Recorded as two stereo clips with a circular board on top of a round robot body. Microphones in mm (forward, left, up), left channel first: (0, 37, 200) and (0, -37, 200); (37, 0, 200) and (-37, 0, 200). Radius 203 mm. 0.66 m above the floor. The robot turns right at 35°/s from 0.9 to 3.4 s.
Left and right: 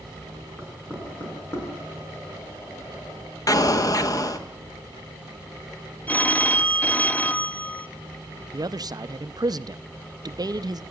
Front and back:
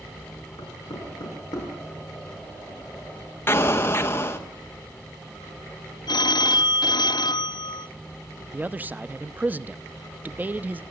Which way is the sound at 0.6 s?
10° left.